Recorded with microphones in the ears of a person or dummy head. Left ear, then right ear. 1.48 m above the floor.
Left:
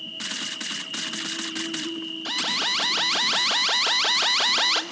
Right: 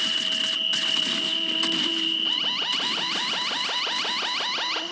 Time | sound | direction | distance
0.0 | an insect | 15° right (ahead or behind) | 0.9 m
2.2 | an alarm | 25° left (ahead or behind) | 1.2 m